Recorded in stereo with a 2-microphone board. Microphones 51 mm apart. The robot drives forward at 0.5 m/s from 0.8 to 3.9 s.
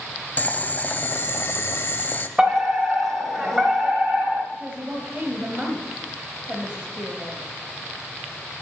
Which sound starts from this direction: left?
Boiling, at 0.4 s.